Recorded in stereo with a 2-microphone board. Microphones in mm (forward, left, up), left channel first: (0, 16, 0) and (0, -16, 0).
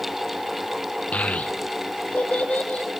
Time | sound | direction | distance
1.1 | a child speaking | 45° left (ahead or behind) | 0.9 m